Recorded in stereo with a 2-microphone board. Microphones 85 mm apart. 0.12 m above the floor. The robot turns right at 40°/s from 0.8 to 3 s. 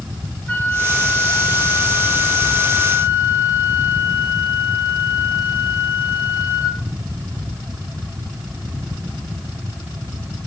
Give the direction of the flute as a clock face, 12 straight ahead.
11 o'clock.